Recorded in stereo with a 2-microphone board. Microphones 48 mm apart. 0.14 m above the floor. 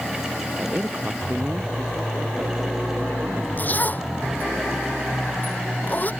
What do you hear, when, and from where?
0.6 s a man speaking: 35° right (ahead or behind); by 3.5 s 55° right (ahead or behind)
3.6 s a zipper: 40° left (ahead or behind)